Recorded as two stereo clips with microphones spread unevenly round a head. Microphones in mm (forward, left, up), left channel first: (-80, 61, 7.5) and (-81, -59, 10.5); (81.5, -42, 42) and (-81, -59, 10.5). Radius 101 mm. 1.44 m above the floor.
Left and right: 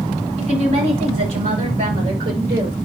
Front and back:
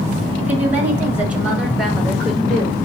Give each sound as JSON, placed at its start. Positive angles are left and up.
{"t": 0.4, "sound": "a woman speaking", "azimuth_deg": -95, "distance_m": 6.0}